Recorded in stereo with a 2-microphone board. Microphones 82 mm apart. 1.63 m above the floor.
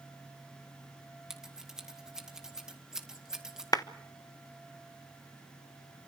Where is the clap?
50° left (ahead or behind), 0.8 m.